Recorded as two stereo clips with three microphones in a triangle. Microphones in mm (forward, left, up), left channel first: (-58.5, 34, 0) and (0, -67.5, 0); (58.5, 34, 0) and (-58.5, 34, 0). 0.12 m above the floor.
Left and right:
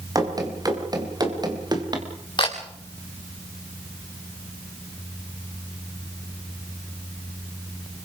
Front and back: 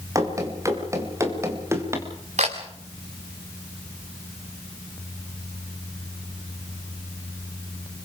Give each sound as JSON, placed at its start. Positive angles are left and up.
{"t": 0.1, "sound": "running footsteps", "azimuth_deg": -120, "distance_m": 6.0}
{"t": 2.4, "sound": "a camera shutter", "azimuth_deg": 170, "distance_m": 4.5}